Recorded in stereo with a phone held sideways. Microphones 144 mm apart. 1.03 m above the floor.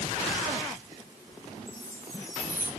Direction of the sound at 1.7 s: 25° left (ahead or behind).